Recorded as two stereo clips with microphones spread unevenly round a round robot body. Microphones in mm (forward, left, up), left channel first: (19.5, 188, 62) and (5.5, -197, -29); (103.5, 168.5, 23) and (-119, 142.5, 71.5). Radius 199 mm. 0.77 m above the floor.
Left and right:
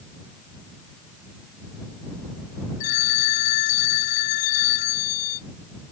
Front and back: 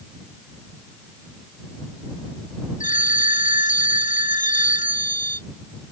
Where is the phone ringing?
65° left.